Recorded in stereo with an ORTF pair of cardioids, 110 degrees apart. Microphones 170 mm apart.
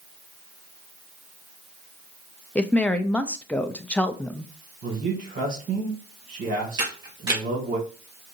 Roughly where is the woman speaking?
Ahead.